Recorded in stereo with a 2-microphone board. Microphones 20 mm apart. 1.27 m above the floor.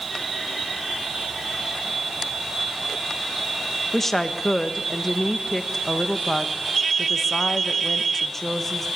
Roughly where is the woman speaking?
Centre.